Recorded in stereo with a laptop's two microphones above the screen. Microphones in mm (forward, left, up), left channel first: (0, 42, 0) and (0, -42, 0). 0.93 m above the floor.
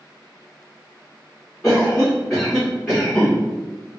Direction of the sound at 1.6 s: 15° left (ahead or behind).